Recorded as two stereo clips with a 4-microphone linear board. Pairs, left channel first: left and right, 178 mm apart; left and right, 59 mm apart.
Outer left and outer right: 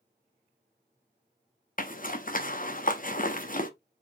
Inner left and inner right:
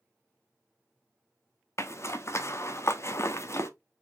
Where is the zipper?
50° left (ahead or behind), 0.7 m.